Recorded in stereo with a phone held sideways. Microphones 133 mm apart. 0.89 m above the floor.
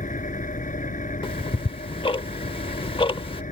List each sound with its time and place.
0.0 s an engine running: 80° left
1.2 s ticking: 40° left (ahead or behind)